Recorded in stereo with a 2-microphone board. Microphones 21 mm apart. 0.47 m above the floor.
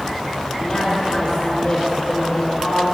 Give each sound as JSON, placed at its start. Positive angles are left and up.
{"t": 0.6, "sound": "a woman speaking", "side_deg": 30, "distance_m": 6.5}